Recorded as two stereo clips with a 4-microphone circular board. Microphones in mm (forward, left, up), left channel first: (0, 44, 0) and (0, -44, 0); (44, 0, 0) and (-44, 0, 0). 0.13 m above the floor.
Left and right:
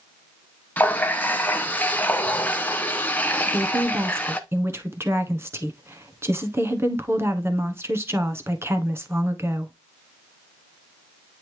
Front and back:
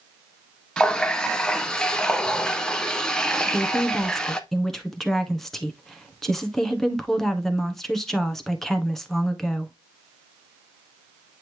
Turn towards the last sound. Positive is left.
turn(degrees=-85)